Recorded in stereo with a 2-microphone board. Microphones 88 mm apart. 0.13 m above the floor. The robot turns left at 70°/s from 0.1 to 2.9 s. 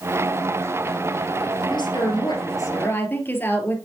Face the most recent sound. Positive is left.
turn(degrees=25)